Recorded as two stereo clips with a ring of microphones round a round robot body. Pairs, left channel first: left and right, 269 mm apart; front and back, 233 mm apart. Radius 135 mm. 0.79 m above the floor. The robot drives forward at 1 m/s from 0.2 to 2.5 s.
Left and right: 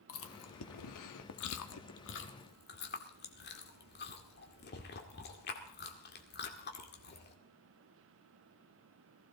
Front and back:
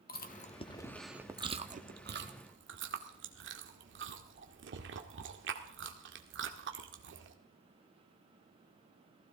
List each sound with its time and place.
0.1 s chewing: 50° left, 1.4 m; by 7.3 s 145° left, 1.8 m